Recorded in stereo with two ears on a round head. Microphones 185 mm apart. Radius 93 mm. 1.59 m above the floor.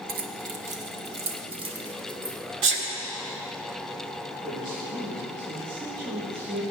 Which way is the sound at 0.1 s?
45° right (ahead or behind).